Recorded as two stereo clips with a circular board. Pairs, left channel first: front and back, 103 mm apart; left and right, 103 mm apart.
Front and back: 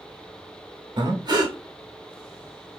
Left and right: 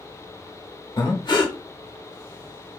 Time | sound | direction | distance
1.0 | breathing | 135° left | 0.7 m